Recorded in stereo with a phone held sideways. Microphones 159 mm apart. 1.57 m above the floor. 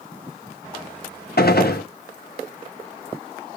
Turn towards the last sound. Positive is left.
turn(degrees=80)